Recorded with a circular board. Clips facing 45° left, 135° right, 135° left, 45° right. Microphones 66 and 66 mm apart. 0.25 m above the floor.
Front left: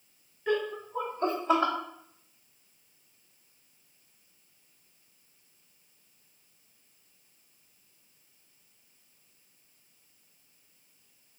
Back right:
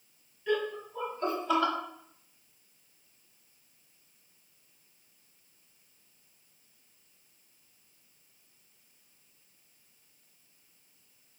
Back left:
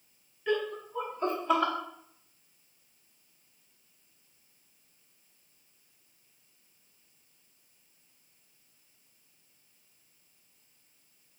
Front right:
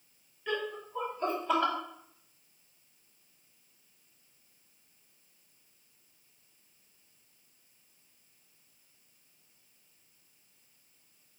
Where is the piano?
I don't hear a piano.